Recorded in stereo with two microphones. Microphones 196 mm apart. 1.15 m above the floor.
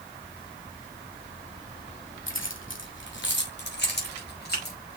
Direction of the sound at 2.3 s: 85° left.